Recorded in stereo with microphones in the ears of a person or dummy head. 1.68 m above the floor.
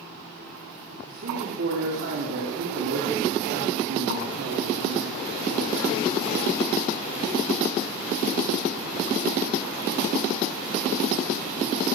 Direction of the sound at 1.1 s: 60° right (ahead or behind).